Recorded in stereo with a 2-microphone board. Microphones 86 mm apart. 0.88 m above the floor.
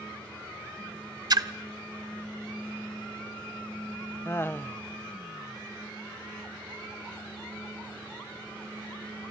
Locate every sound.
1.3 s a splash: 50° right (ahead or behind), 0.7 m
4.2 s laughter: 25° left (ahead or behind), 0.7 m